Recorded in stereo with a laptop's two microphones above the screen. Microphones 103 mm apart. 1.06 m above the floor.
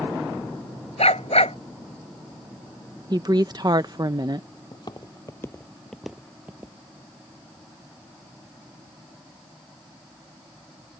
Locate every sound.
1.0 s a dog barking: 80° left
3.1 s a woman speaking: 40° right (ahead or behind)
4.7 s footsteps: 45° left (ahead or behind); by 6.8 s 30° right (ahead or behind)